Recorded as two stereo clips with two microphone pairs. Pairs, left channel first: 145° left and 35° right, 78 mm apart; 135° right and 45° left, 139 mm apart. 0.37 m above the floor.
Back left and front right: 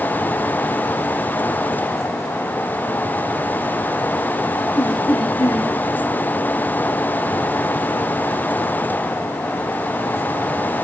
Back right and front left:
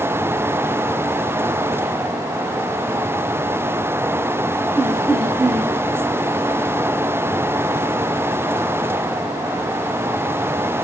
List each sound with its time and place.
4.8 s laughter: 130° left, 6 m